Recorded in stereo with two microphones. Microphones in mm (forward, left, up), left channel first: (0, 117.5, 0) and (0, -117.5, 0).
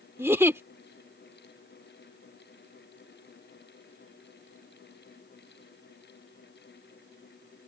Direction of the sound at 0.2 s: 10° right (ahead or behind).